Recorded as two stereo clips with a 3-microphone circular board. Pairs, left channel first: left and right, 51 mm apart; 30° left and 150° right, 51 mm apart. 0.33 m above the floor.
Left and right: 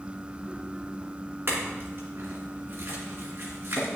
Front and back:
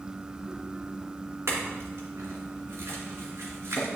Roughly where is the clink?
Behind right.